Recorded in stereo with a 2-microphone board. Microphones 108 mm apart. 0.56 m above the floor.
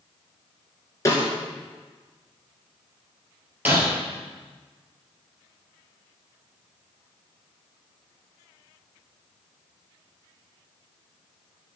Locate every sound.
1.1 s a snare drum: 30° left (ahead or behind), 1.9 m
3.6 s breaking glass: 20° right (ahead or behind), 2 m